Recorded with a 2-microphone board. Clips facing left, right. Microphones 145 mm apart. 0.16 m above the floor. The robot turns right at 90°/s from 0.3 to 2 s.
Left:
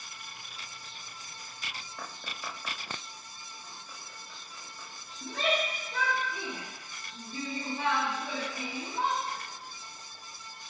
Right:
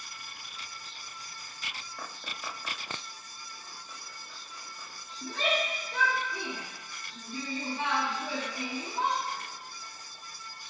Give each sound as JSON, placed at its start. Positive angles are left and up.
{"t": 5.2, "sound": "a shout", "side_deg": 0, "distance_m": 2.5}